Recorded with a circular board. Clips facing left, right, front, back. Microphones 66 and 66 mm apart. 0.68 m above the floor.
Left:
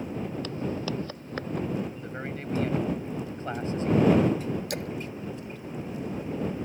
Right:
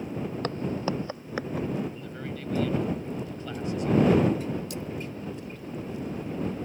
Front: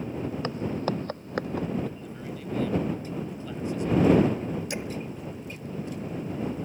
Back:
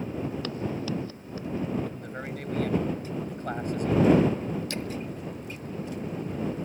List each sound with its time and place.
0.4 s footsteps: 60° right; by 1.7 s straight ahead
1.9 s a man speaking: 145° left
4.7 s a splash: 75° left